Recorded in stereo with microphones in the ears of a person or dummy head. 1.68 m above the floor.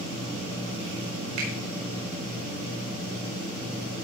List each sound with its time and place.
1.4 s a finger snap: 60° right (ahead or behind), 4.5 m